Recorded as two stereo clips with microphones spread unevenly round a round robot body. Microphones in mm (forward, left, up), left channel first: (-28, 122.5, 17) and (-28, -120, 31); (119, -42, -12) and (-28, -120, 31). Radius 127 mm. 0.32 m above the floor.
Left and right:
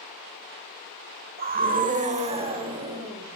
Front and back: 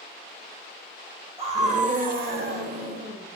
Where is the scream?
95° right, 1.5 m; by 3.2 s 165° right, 2 m.